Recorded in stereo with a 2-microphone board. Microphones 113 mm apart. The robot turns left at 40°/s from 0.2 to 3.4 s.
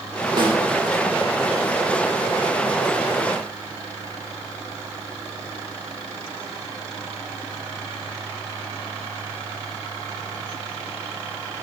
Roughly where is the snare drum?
Right.